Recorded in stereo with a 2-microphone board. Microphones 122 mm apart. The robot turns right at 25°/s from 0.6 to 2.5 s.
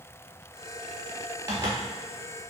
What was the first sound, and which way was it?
A zipper, 20° right (ahead or behind).